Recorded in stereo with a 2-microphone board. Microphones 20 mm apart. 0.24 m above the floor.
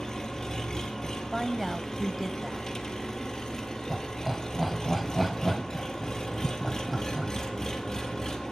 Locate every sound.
0.0 s an engine running: 30° left (ahead or behind), 1.7 m
1.3 s a woman speaking: 15° right (ahead or behind), 1.0 m
3.9 s laughter: 5° right (ahead or behind), 1.7 m